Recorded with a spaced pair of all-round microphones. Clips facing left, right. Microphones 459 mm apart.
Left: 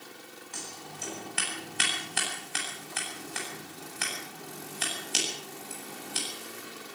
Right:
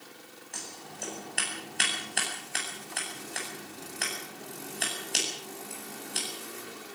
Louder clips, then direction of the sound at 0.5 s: Even; 20° left (ahead or behind).